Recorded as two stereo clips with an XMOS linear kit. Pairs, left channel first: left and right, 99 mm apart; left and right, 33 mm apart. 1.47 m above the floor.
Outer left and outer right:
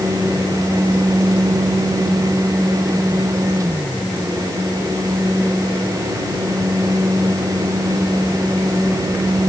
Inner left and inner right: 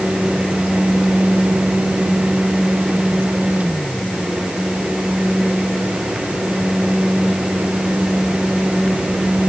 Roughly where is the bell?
I don't hear a bell.